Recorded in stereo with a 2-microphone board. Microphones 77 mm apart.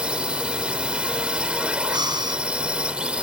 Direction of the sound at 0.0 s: 15° right (ahead or behind).